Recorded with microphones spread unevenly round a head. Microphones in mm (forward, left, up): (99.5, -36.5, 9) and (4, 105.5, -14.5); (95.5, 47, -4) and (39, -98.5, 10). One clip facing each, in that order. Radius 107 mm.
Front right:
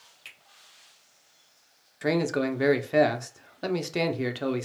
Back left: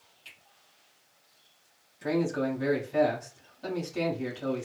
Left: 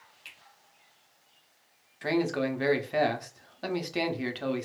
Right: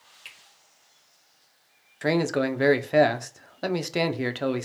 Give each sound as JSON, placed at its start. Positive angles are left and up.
{"t": 0.2, "sound": "a finger snap", "azimuth_deg": -80, "distance_m": 1.4}
{"t": 2.0, "sound": "a man speaking", "azimuth_deg": -75, "distance_m": 0.5}